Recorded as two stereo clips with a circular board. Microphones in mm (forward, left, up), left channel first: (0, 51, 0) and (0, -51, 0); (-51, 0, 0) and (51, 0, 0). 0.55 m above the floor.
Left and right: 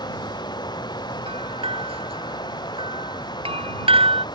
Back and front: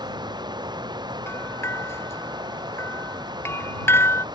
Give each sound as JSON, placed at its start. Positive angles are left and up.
{"t": 0.0, "sound": "running water", "azimuth_deg": 45}
{"t": 1.3, "sound": "a bell", "azimuth_deg": -115}